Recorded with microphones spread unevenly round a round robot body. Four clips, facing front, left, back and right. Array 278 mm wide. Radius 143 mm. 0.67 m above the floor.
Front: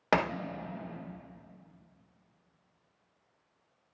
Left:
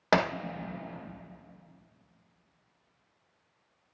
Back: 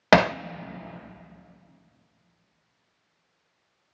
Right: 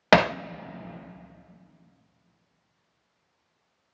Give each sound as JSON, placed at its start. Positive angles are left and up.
{"t": 0.1, "sound": "hammering", "azimuth_deg": -150, "distance_m": 0.5}